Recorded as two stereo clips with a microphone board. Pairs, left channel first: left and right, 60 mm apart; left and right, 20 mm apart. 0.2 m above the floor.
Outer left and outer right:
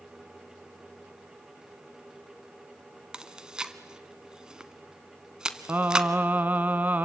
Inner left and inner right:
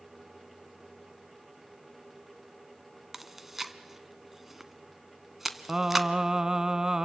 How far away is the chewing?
About 1.1 m.